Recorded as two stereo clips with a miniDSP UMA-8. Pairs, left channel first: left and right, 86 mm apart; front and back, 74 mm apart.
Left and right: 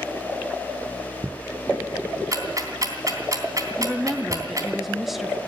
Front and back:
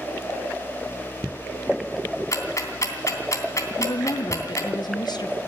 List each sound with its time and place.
2.3 s ticking: 40° right, 3 m
3.8 s a woman speaking: 5° right, 1.0 m